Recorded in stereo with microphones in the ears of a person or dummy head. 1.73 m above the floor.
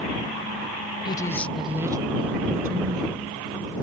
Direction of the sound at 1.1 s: 25° left (ahead or behind).